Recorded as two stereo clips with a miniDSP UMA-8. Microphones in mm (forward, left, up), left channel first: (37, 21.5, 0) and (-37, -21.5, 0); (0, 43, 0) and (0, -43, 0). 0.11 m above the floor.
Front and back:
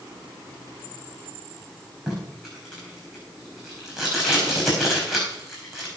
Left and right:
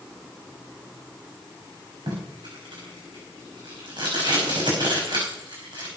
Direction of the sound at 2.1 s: 65° right.